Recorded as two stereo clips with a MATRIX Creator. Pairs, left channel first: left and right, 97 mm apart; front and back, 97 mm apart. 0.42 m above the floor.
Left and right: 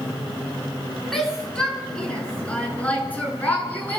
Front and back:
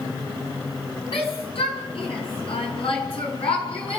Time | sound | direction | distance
1.1 | a shout | 5° left | 6 m